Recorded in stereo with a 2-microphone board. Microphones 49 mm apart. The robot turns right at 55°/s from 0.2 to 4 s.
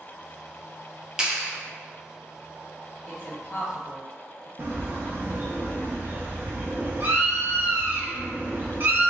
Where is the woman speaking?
35° left (ahead or behind), 1.2 m; by 4.5 s 60° left (ahead or behind), 1.2 m.